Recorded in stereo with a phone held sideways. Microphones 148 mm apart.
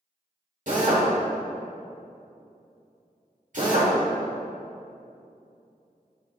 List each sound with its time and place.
0.7 s a drill: 60° right (ahead or behind), 2 m